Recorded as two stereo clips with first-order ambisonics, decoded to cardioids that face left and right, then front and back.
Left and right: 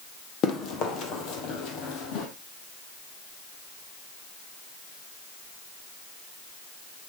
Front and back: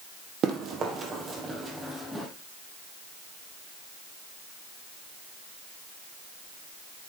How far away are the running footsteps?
About 2.5 m.